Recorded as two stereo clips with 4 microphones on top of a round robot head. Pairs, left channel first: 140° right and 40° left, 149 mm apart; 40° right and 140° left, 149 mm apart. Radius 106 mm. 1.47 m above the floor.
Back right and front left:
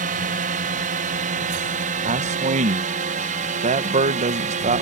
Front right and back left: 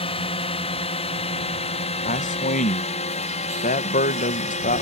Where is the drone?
10° left; by 4.8 s 5° left.